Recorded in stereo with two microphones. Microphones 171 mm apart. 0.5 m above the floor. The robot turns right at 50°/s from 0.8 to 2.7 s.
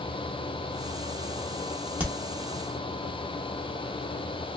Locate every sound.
2.0 s a crack: 10° right (ahead or behind), 0.9 m; by 2.1 s 15° right (ahead or behind), 0.9 m